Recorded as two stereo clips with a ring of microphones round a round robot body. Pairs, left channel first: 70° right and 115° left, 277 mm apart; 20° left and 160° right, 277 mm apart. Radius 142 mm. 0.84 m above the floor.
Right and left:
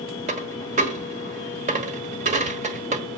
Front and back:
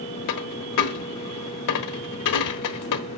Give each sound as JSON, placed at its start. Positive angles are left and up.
{"t": 0.3, "sound": "a dropped coin", "azimuth_deg": 45, "distance_m": 1.4}